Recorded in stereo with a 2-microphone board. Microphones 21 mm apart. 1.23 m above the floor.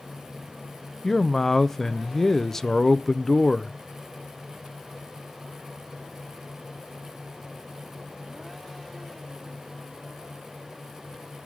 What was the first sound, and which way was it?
A man speaking, 15° left (ahead or behind).